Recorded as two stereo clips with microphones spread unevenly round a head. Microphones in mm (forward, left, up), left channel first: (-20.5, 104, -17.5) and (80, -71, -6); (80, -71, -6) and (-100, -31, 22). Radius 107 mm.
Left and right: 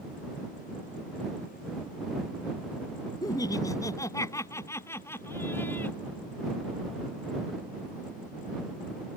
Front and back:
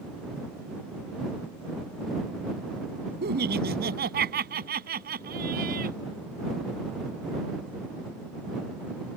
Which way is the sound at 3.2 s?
165° right.